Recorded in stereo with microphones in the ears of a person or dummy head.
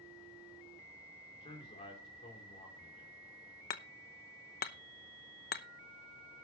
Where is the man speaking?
30° left (ahead or behind), 3.5 m.